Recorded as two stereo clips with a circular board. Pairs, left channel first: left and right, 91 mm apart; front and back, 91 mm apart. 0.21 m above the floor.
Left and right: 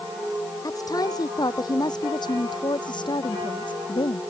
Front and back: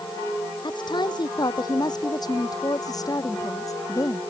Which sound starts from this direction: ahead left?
A woman speaking, at 0.6 s.